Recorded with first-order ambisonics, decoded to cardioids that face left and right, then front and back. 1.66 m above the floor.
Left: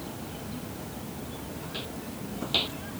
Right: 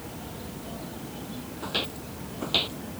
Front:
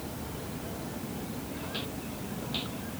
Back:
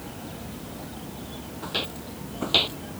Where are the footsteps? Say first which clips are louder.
Right 10 dB, back 10 dB; 130° right; by 2.8 s straight behind.